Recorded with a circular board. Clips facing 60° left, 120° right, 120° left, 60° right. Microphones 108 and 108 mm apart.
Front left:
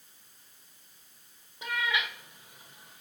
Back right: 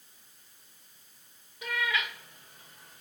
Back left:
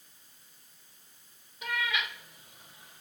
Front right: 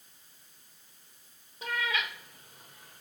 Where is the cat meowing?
5° right, 2.5 m; by 3.0 s 25° right, 4 m.